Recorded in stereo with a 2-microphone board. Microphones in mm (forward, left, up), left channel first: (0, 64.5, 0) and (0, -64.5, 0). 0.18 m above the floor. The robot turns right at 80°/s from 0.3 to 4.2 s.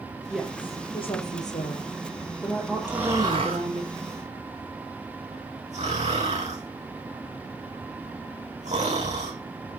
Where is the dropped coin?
I don't hear a dropped coin.